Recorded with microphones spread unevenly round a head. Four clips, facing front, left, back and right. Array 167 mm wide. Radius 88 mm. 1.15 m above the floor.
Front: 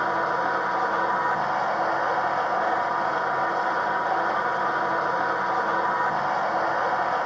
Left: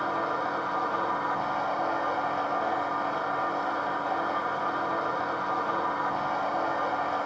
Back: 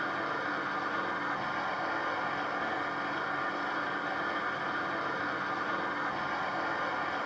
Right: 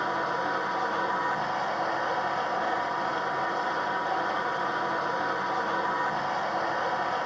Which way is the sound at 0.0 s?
10° left.